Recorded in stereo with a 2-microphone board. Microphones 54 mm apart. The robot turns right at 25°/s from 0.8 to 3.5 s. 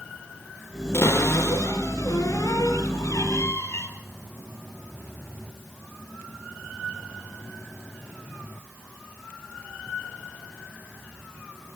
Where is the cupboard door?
55° left, 4.5 m; by 3.9 s 120° left, 4.5 m.